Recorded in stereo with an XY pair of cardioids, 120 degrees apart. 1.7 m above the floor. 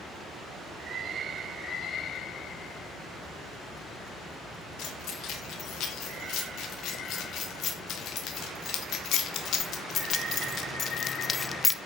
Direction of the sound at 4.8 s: 65° left.